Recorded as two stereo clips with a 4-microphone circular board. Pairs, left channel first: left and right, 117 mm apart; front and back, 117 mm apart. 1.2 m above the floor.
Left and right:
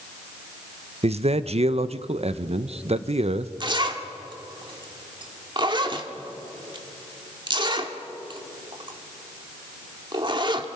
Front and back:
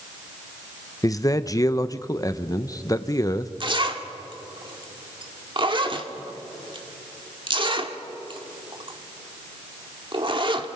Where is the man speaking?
60° right, 0.7 m.